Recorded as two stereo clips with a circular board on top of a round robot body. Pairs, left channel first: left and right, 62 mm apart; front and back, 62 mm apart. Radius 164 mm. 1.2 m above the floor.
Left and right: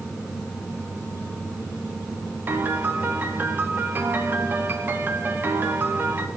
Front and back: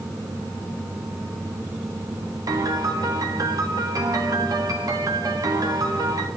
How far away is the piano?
About 1.2 m.